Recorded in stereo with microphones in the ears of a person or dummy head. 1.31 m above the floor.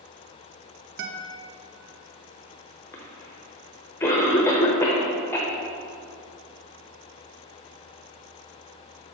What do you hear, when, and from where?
1.0 s a guitar: 55° right (ahead or behind), 0.7 m
2.9 s a cough: 15° left (ahead or behind), 0.6 m